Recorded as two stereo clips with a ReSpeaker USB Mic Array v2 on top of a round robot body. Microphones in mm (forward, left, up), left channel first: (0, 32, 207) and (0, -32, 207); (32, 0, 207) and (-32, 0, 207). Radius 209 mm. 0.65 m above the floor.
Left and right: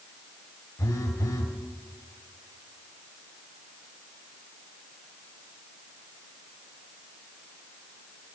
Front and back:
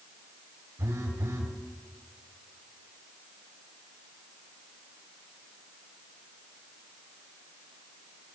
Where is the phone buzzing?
130° left, 1.1 m.